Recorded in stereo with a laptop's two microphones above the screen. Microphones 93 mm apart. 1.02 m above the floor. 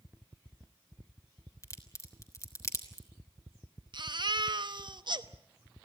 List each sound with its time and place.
1.6 s a crack: 35° left (ahead or behind), 3.5 m
3.9 s a baby crying: 55° right (ahead or behind), 1.0 m